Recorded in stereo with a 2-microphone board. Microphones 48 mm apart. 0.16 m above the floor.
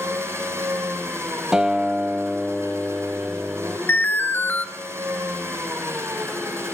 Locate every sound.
0.0 s an engine running: 65° right (ahead or behind), 8 m
1.5 s a guitar: 15° right (ahead or behind), 1.8 m
3.9 s an alarm: 45° left (ahead or behind), 1.9 m